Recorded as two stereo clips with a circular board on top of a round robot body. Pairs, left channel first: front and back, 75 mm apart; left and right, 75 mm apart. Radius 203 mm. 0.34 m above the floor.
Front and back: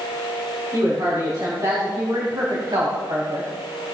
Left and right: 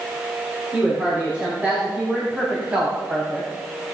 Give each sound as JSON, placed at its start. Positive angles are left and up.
{"t": 0.7, "sound": "a woman speaking", "azimuth_deg": -160, "distance_m": 5.5}